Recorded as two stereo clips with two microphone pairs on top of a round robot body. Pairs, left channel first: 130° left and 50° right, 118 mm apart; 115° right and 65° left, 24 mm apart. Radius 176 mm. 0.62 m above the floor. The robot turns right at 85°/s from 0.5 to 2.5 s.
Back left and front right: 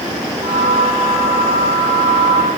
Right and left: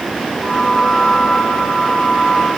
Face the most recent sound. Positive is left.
No sound to turn to.